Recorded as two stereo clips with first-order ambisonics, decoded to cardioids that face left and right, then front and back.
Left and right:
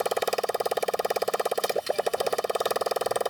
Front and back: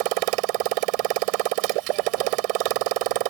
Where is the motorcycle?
175° right.